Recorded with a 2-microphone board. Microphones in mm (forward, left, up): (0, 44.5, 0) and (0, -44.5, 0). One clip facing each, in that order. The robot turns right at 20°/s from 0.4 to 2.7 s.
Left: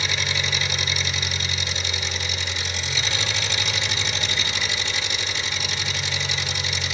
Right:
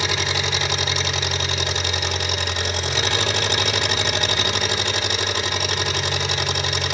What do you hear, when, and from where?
0.0 s an engine running: 110° right, 2 m; by 6.9 s 60° right, 2 m